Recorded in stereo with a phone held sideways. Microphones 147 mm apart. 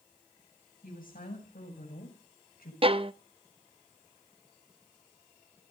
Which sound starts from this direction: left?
A woman speaking, at 0.8 s.